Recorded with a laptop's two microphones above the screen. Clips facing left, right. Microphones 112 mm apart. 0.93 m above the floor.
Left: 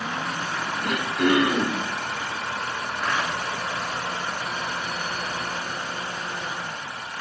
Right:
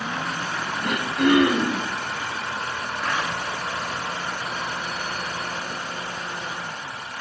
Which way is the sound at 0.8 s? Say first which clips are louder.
Right 2 dB; 65° right (ahead or behind).